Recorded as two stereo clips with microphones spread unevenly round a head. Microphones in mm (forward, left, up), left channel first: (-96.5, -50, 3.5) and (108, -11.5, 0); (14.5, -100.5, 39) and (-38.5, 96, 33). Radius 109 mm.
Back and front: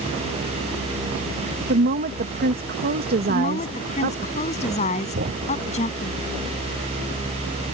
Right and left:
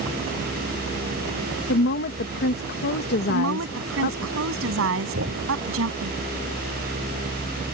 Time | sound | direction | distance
1.7 | a woman speaking | 35° right | ?
3.3 | a woman speaking | 130° left | ?
5.2 | a thud | 65° left | ?